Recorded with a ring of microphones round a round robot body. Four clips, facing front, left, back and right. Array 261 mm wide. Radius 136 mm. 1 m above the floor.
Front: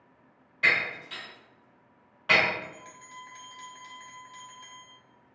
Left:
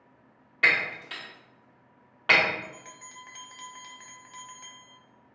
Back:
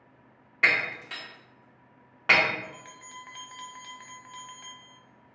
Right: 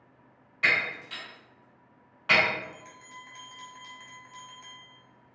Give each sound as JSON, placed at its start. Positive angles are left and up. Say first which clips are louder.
{"t": 0.6, "sound": "breaking glass", "louder": "left 2 dB, back 1 dB", "azimuth_deg": 145, "distance_m": 1.6}
{"t": 2.6, "sound": "a bell", "louder": "even, even", "azimuth_deg": 150, "distance_m": 0.7}